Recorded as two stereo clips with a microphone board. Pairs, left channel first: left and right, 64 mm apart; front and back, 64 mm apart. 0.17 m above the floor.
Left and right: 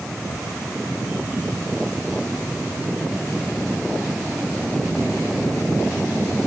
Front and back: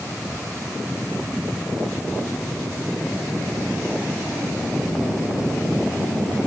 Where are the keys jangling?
No keys jangling in this recording.